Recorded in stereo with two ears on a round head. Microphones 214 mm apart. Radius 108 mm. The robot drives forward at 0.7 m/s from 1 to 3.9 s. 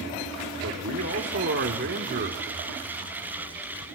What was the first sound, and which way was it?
A man speaking, 55° right (ahead or behind).